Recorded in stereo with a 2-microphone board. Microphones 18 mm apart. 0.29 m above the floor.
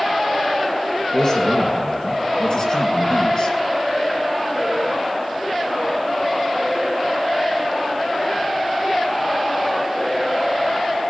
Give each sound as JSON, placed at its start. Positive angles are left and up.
{"t": 1.1, "sound": "a man speaking", "side_deg": 50, "distance_m": 4.0}